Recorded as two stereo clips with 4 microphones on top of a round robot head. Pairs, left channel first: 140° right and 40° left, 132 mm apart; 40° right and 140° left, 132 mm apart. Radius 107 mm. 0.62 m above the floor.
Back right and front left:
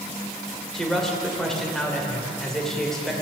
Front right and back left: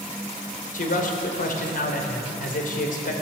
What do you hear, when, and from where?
0.7 s a man speaking: 50° right, 3 m